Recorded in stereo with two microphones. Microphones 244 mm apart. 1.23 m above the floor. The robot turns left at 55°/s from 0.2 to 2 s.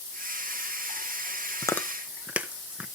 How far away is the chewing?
About 0.8 m.